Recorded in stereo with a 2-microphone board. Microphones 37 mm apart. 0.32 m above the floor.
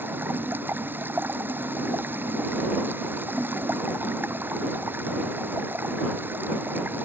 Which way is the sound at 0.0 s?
65° right (ahead or behind).